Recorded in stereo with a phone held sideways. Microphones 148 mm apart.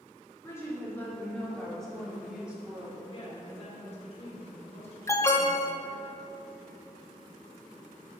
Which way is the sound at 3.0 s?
45° left (ahead or behind).